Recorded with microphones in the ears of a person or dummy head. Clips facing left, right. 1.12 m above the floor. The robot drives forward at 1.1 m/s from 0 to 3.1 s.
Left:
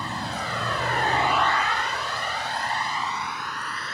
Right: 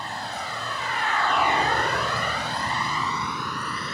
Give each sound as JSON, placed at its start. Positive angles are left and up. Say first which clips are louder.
{"t": 0.0, "sound": "a vehicle", "louder": "left 2 dB", "side_deg": 70}